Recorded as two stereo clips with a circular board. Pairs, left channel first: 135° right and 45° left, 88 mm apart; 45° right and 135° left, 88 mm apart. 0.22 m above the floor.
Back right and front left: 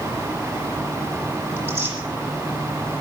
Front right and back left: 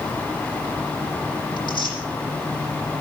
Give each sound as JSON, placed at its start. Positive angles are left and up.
{"t": 1.6, "sound": "tearing paper", "azimuth_deg": -20, "distance_m": 8.5}